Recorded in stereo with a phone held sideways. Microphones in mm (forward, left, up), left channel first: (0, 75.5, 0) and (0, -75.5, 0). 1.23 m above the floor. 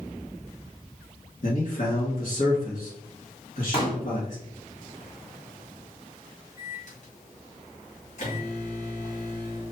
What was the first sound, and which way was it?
A man speaking, 55° left (ahead or behind).